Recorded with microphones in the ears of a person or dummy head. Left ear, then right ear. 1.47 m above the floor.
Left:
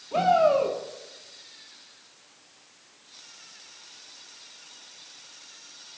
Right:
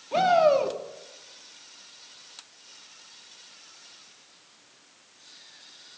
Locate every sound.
0.1 s a shout: 25° right (ahead or behind), 2.5 m